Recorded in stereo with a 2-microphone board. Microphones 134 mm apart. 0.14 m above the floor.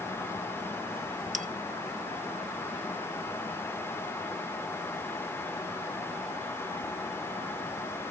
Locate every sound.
1.3 s a bell: 70° right (ahead or behind), 1.1 m